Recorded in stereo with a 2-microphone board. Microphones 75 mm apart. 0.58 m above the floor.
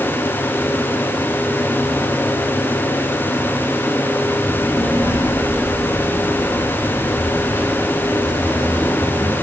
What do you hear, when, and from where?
4.4 s a child speaking: 35° left (ahead or behind), 7 m; by 9.3 s 45° left (ahead or behind), 9 m